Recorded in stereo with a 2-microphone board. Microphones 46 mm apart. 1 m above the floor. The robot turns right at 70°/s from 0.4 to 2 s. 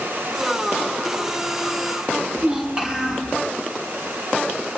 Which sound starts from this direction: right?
A child speaking, at 2.4 s.